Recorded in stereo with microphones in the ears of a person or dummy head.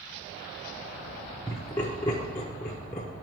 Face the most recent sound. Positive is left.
turn(degrees=15)  # may be behind; listen again after turning